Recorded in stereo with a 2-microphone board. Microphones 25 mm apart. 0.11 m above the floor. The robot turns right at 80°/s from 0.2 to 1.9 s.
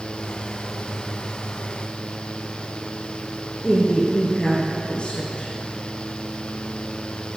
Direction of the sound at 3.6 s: 40° left (ahead or behind).